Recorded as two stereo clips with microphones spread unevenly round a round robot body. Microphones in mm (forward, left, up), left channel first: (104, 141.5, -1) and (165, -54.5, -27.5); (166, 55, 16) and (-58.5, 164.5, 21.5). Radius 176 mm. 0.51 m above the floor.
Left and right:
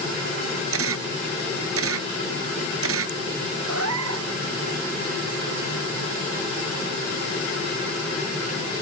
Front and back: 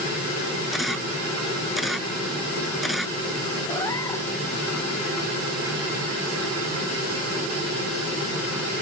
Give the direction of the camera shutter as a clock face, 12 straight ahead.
4 o'clock.